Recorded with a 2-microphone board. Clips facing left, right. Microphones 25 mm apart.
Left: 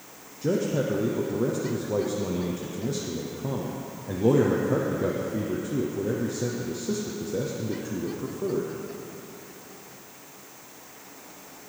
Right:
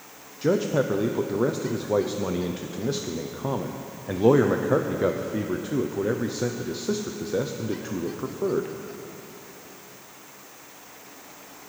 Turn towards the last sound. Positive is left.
turn(degrees=-45)  # may be behind; listen again after turning